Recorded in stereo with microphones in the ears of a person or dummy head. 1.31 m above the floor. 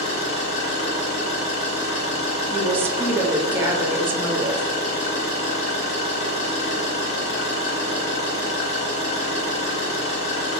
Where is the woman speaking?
15° right (ahead or behind), 0.6 m.